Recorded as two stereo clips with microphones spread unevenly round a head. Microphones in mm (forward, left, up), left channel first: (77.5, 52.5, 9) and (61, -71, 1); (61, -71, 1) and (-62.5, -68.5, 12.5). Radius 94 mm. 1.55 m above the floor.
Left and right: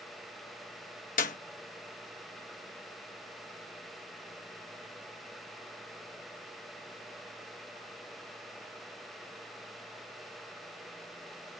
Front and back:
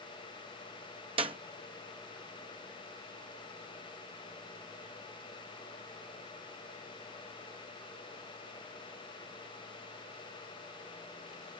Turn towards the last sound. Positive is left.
turn(degrees=120)